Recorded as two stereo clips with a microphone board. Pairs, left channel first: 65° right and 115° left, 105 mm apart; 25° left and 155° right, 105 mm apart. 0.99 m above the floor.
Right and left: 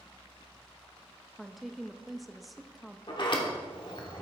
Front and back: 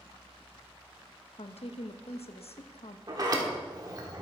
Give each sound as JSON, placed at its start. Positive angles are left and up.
{"t": 1.4, "sound": "a woman speaking", "azimuth_deg": 25, "distance_m": 0.7}
{"t": 3.1, "sound": "a sliding door", "azimuth_deg": -105, "distance_m": 1.5}